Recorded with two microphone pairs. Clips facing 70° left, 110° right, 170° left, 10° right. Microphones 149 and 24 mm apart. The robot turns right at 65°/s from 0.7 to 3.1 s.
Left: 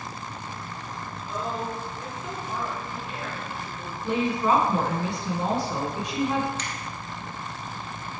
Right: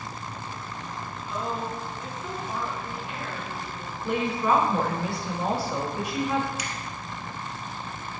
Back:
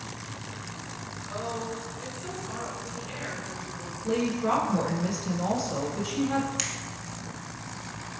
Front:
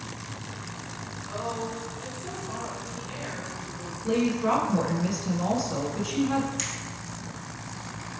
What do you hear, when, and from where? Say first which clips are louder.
1.3 s a woman speaking: even, front 1 dB; 75° left, 1.6 m; by 3.9 s 165° right, 1.6 m
4.0 s a woman speaking: left 1 dB, front 2 dB; 40° left, 1.1 m
6.6 s a finger snap: even, back 1 dB; 175° right, 0.9 m